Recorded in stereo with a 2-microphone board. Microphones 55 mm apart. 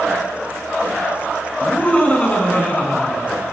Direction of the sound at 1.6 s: 20° left (ahead or behind).